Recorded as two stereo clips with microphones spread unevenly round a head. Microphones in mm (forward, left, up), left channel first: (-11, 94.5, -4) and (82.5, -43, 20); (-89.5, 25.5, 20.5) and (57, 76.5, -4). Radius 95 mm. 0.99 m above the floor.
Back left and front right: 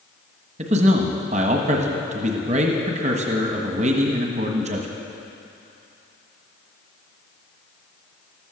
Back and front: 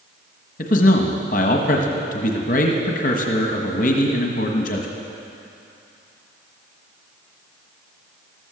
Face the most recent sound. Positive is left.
turn(degrees=-115)